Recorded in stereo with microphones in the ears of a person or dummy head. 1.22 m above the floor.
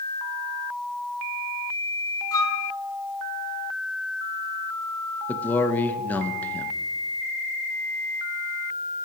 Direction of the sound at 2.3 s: 15° left (ahead or behind).